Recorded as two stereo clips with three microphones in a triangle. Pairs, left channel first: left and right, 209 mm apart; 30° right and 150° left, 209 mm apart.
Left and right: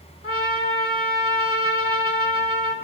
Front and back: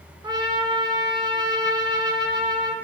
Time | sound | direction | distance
0.2 | a trumpet | 85° left | 0.6 m